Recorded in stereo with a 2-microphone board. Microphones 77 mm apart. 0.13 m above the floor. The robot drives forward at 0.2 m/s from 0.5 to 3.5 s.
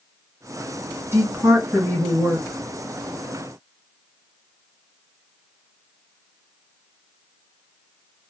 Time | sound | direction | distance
1.1 | a woman speaking | 35° right (ahead or behind) | 1.8 m